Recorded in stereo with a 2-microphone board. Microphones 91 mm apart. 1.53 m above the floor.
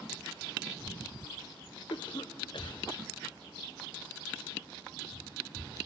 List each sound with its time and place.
1.9 s a cough: 60° left (ahead or behind), 0.7 m